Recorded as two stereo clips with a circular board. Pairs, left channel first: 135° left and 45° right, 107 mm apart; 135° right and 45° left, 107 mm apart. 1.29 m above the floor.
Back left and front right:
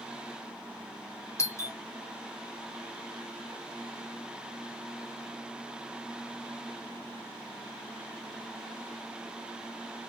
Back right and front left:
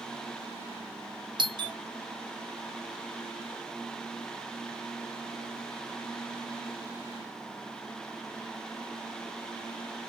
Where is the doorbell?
80° left, 0.6 m.